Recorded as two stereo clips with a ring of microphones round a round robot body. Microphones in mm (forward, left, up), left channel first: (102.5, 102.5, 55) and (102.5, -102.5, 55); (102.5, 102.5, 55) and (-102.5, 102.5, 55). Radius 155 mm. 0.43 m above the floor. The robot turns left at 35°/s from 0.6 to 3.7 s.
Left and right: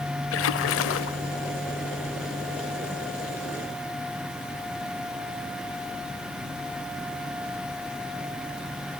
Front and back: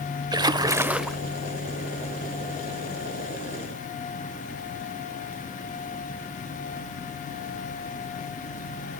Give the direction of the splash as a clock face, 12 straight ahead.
8 o'clock.